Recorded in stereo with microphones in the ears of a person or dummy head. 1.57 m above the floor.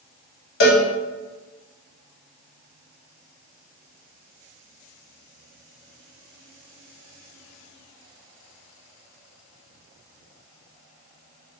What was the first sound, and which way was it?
A cowbell, 75° left (ahead or behind).